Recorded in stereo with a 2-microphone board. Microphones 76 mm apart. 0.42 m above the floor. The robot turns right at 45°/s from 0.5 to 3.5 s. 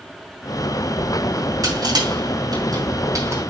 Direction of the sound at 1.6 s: 55° right (ahead or behind).